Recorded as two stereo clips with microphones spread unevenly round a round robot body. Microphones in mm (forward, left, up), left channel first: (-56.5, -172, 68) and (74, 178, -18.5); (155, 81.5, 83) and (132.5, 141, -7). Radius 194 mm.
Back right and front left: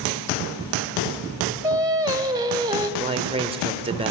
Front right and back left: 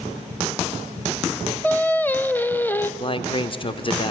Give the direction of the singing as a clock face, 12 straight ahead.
12 o'clock.